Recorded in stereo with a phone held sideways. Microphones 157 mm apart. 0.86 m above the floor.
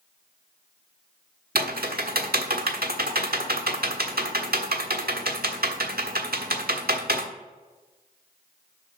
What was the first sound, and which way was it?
Typing on a keyboard, 75° right (ahead or behind).